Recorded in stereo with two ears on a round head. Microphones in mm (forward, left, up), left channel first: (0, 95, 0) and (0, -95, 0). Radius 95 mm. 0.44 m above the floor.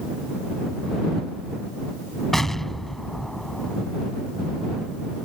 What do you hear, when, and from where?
2.3 s an explosion: centre (ahead or behind)